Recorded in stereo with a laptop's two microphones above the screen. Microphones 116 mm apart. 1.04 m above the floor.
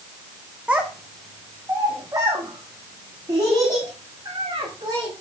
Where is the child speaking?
10° right (ahead or behind), 0.7 m; by 5.1 s 40° right (ahead or behind), 3 m.